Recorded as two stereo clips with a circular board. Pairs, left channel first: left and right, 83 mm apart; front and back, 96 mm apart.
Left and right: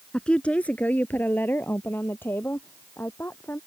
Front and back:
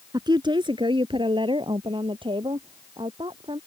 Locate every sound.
0.1 s a woman speaking: 170° left; by 3.6 s 155° left